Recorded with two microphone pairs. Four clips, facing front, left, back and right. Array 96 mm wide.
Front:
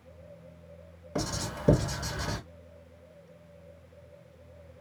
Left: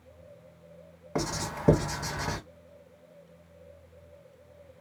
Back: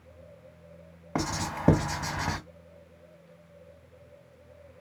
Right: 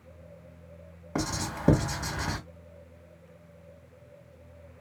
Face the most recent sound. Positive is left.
turn(degrees=175)